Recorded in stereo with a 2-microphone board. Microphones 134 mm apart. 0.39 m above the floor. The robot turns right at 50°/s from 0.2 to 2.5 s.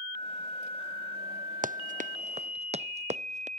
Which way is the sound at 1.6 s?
85° right.